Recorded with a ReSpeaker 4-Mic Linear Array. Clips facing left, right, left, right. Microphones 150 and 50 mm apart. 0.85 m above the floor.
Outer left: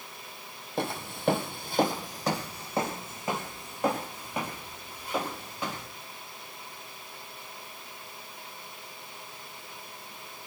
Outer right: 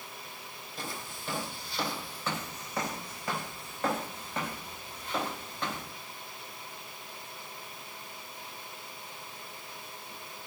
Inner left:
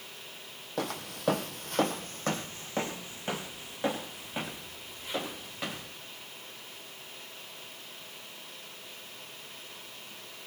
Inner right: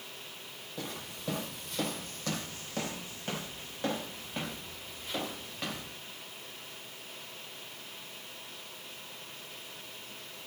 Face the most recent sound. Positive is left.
turn(degrees=5)  # may be behind; listen again after turning